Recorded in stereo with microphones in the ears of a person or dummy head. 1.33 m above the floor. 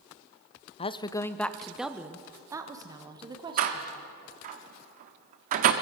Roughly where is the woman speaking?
Left.